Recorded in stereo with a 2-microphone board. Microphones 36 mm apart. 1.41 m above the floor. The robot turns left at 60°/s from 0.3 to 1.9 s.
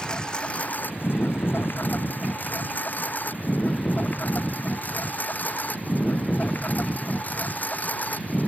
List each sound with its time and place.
0.0 s a lawn mower: 25° left (ahead or behind); by 8.5 s 50° left (ahead or behind)